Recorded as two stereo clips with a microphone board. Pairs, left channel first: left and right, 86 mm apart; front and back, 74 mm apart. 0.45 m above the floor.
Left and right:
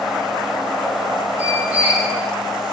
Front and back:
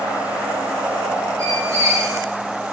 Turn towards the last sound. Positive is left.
turn(degrees=-155)